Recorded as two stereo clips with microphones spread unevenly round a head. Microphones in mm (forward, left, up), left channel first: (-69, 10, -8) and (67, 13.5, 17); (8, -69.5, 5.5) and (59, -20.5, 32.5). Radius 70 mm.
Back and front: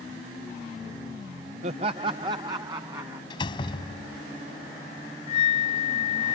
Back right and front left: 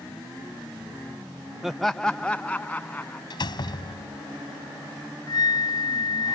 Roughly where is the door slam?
Behind right.